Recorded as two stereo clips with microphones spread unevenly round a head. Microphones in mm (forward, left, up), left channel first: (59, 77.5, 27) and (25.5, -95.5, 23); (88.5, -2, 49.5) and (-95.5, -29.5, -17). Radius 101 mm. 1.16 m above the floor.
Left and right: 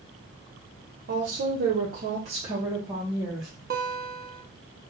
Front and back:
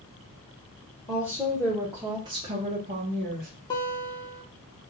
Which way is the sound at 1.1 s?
75° right.